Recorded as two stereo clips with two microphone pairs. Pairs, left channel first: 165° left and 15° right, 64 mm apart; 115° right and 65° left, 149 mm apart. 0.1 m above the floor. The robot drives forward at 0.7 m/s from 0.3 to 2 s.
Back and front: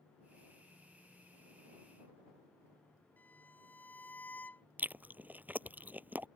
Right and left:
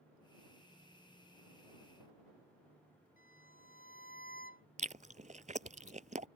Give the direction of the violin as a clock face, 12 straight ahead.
4 o'clock.